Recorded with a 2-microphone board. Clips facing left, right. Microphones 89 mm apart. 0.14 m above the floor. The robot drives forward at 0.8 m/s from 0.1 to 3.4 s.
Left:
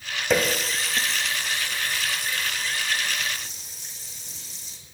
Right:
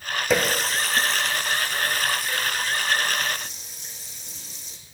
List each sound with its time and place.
0.3 s a running tap: centre (ahead or behind), 1.6 m